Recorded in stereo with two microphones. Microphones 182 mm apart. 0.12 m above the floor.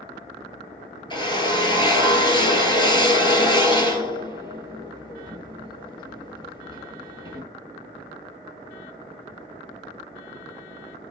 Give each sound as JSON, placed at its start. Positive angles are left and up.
{"t": 1.1, "sound": "a drill", "side_deg": 25, "distance_m": 1.1}